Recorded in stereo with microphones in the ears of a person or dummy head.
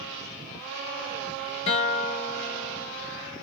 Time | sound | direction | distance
1.7 | a guitar | 35° left (ahead or behind) | 0.7 m